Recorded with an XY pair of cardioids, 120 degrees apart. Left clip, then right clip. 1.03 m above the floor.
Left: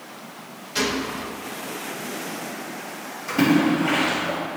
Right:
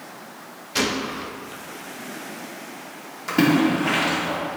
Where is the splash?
40° right, 3 m.